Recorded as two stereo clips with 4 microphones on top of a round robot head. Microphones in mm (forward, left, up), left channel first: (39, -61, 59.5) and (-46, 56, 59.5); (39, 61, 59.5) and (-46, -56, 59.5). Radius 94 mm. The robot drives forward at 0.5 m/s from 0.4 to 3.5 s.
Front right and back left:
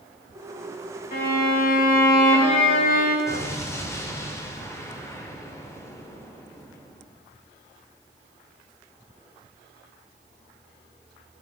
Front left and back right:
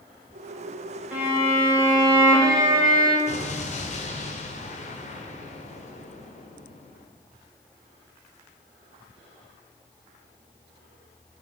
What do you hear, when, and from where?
1.1 s a violin: 45° right, 3 m; by 3.2 s 65° right, 2.5 m
3.3 s an explosion: 15° left, 2 m